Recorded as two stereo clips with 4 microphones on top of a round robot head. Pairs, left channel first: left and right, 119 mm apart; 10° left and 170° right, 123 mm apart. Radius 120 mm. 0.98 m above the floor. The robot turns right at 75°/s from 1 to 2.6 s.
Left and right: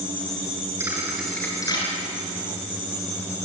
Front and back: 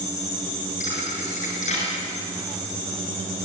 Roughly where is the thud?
Ahead.